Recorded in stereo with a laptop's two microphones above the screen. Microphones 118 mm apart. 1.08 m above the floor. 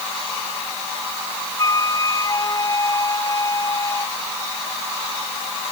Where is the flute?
35° left (ahead or behind).